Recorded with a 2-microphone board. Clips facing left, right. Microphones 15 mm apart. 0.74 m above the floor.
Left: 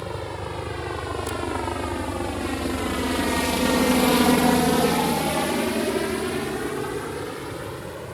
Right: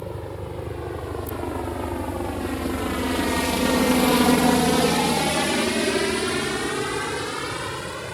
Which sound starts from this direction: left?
A helicopter, at 0.0 s.